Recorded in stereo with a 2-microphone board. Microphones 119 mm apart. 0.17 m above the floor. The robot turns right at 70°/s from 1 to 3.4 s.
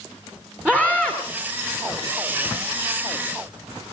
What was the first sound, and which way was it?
A scream, 10° right (ahead or behind).